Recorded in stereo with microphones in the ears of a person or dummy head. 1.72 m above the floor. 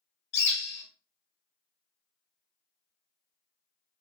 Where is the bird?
55° left (ahead or behind), 1.5 m.